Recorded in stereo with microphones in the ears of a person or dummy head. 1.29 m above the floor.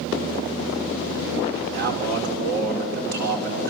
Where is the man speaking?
50° right (ahead or behind), 4 m.